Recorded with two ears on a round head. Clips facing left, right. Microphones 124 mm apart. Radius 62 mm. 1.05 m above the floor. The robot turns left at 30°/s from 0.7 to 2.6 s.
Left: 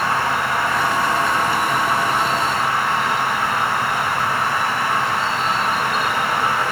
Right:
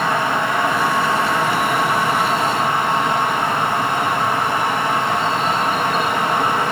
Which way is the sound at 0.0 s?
85° right.